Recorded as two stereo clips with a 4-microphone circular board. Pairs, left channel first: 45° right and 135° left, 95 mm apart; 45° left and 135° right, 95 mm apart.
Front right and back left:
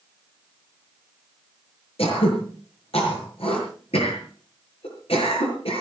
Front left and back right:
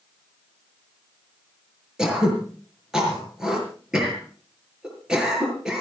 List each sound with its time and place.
2.0 s throat clearing: 50° right, 6 m